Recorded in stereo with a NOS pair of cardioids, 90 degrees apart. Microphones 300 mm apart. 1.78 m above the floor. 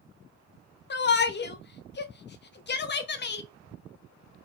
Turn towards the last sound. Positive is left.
turn(degrees=35)